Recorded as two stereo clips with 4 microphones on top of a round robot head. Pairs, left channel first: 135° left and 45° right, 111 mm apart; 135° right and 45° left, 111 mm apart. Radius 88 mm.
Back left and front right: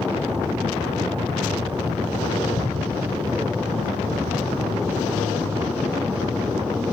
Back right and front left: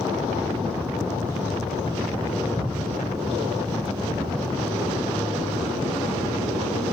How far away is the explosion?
About 3 m.